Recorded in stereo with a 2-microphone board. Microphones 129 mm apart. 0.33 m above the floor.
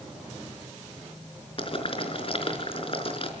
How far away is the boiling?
About 4 m.